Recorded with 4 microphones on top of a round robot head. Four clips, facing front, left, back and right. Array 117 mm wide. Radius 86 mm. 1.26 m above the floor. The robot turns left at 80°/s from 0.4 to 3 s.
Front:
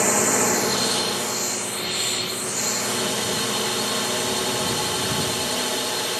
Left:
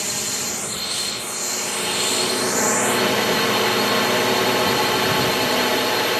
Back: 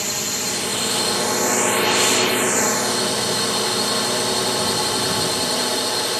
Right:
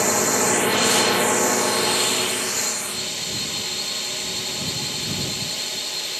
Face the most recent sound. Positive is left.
turn(degrees=105)